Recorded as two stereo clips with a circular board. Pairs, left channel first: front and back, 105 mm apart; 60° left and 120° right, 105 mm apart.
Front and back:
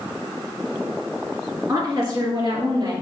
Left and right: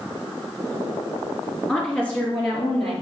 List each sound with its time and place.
1.7 s a woman speaking: 135° left, 2.5 m